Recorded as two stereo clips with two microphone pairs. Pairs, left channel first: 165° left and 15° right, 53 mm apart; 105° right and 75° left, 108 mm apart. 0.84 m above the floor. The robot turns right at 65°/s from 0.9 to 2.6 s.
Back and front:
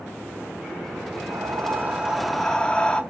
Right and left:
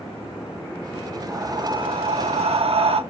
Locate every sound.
1.3 s breathing: 10° left, 1.1 m; by 3.0 s 95° left, 1.1 m